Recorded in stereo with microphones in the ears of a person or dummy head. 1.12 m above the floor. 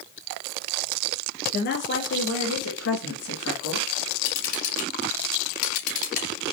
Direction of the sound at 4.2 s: 35° left (ahead or behind).